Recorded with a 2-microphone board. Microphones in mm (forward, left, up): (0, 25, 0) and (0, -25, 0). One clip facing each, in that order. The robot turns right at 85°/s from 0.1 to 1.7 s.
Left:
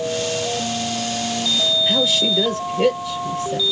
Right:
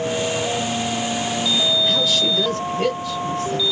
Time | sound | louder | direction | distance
1.9 | a woman speaking | left 1 dB | 20° left (ahead or behind) | 3.5 m